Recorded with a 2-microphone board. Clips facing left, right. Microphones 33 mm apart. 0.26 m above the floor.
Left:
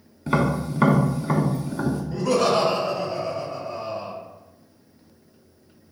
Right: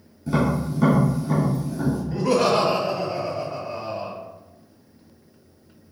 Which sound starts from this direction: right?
Laughter, at 2.1 s.